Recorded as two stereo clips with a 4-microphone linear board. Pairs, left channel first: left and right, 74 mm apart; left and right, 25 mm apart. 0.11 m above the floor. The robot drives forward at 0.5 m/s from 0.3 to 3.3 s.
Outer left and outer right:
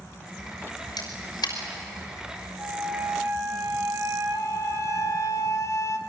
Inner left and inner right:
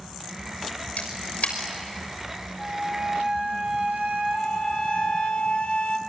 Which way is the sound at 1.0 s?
65° left (ahead or behind).